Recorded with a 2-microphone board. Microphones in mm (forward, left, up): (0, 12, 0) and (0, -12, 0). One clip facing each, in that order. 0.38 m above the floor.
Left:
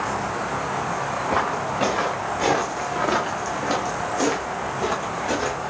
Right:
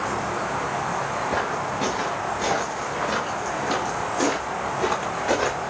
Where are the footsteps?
80° left, 2 m; by 5.6 s 15° right (ahead or behind), 1.9 m.